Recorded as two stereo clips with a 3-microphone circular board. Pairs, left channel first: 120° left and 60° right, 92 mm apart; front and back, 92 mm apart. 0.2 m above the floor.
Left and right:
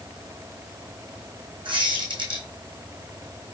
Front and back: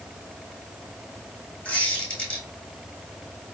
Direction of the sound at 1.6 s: 75° right.